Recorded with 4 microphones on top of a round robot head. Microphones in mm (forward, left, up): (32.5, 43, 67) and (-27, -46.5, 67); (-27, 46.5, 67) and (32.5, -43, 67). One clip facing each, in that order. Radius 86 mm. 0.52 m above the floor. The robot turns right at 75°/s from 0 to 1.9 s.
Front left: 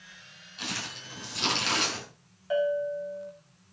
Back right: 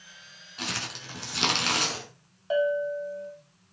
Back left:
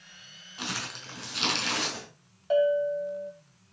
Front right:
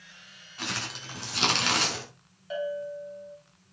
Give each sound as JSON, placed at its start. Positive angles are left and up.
{"t": 0.6, "sound": "crumpling", "azimuth_deg": -165, "distance_m": 5.0}
{"t": 2.5, "sound": "a bell", "azimuth_deg": 170, "distance_m": 2.5}